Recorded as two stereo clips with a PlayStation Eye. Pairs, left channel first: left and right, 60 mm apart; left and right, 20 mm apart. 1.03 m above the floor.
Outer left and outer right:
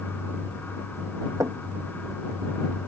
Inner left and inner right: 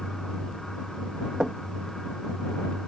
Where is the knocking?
70° right (ahead or behind).